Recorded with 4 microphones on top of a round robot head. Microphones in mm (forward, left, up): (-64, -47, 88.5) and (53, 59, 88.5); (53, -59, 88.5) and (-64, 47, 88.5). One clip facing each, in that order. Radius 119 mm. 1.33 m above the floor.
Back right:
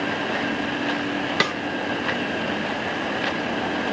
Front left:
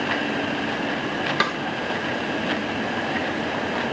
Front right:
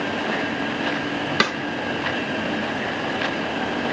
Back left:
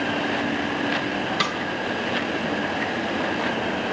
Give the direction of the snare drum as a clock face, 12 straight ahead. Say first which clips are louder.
Back right 1 dB, front right 4 dB; 2 o'clock.